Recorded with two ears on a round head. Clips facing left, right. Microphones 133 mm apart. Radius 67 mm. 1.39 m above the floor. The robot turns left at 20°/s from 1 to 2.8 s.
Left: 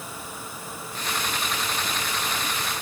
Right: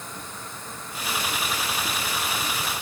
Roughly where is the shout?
I don't hear a shout.